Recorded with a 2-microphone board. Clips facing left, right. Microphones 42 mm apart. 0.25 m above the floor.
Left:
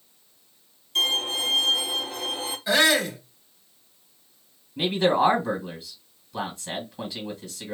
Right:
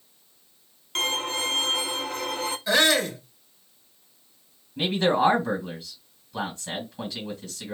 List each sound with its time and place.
0.9 s a violin: 65° right (ahead or behind), 0.8 m
2.7 s a shout: 15° left (ahead or behind), 1.3 m
4.8 s a man speaking: 5° left (ahead or behind), 1.6 m